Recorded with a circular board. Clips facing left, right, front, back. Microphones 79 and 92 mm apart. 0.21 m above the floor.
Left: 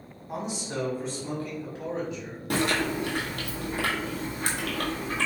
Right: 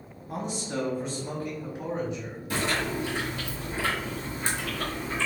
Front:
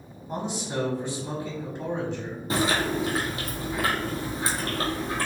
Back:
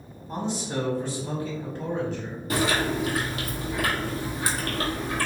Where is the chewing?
65° left, 1.4 m.